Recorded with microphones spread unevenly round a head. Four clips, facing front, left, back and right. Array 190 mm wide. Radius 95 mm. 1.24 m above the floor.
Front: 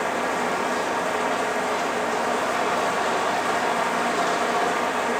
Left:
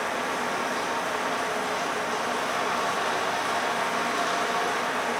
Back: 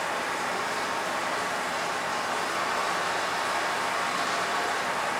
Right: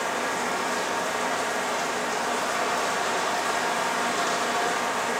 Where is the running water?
5° right, 0.9 m.